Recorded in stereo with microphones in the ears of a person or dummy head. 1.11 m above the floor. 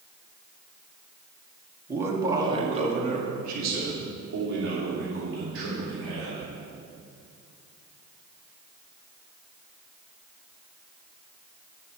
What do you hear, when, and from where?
1.9 s a man speaking: 10° right (ahead or behind), 2 m; by 6.5 s 80° right, 4.5 m